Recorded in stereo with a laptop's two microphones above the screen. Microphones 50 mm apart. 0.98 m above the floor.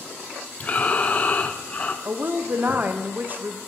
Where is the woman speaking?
35° right (ahead or behind), 0.6 m.